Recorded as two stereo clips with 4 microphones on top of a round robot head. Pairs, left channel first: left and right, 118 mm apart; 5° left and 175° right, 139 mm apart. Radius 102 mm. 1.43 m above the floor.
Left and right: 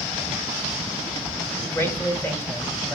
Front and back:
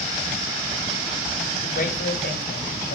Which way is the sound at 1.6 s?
20° left.